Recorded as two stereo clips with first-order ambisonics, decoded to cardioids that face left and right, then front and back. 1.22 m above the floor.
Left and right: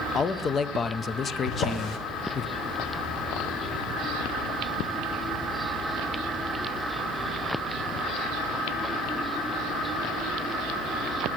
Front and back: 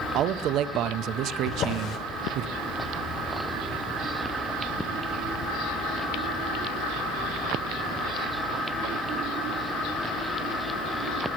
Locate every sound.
0.1 s a man speaking: 155° left, 0.5 m
1.5 s a drawer: 40° left, 1.6 m